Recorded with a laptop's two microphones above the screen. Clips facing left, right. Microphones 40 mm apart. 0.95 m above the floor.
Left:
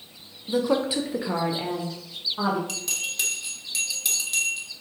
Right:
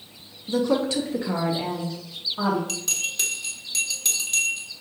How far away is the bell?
About 1.3 m.